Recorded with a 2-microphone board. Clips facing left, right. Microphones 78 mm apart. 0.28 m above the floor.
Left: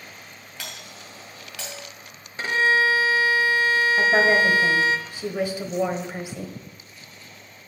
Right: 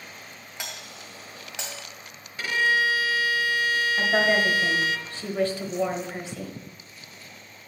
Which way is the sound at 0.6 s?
20° right (ahead or behind).